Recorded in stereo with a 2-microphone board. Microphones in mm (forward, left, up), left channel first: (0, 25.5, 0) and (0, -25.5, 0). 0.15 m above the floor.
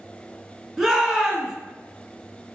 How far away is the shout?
About 1.1 m.